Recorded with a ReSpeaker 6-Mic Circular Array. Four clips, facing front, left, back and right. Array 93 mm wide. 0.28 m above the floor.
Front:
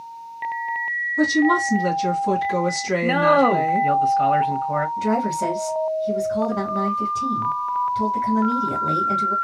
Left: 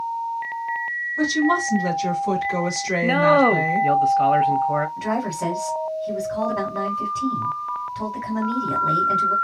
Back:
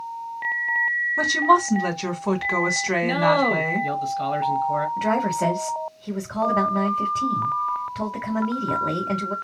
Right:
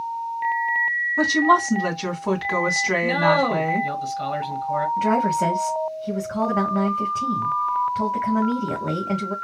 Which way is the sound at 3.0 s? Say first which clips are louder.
Left 4 dB, front 4 dB; 55° left.